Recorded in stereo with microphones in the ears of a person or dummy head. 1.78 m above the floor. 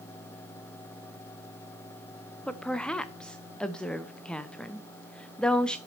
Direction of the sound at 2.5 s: 5° left (ahead or behind).